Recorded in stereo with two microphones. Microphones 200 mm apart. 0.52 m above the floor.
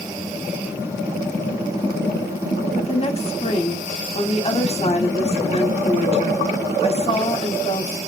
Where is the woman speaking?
30° left (ahead or behind), 1.2 m.